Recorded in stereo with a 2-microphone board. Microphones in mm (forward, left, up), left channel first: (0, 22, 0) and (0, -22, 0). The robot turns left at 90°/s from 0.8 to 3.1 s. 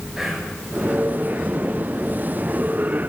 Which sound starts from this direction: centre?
Whispering, at 0.2 s.